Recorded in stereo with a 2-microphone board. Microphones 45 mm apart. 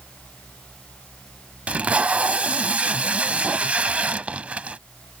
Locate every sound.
1.7 s tape being pulled: 30° right (ahead or behind)